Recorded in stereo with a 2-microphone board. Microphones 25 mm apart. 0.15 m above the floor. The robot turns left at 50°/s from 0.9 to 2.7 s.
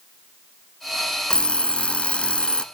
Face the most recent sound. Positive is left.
turn(degrees=55)